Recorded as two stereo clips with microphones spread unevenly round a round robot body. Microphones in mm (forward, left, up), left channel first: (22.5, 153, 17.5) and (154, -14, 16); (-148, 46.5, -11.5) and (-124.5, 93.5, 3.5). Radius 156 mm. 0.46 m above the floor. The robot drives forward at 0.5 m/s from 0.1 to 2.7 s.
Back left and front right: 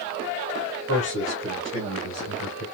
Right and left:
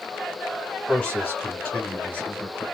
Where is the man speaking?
170° left, 2.5 m; by 2.6 s 175° left, 3.5 m.